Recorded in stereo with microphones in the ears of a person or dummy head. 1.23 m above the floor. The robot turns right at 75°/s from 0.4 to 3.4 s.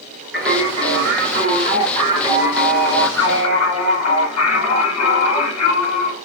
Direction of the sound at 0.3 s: Straight behind.